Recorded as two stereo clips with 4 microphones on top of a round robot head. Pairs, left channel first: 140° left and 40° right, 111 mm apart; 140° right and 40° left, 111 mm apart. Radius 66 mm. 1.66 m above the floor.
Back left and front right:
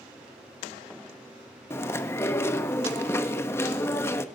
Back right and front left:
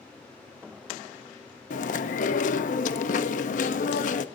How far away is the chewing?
About 1.1 m.